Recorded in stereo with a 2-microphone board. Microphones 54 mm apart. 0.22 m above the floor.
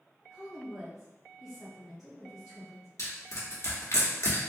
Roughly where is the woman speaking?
Centre.